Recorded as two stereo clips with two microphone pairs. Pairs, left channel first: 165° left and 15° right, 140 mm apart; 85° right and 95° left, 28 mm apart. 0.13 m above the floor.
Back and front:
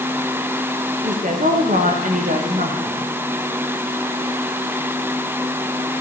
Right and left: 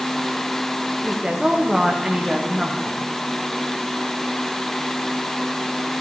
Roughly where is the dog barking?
No dog barking in this recording.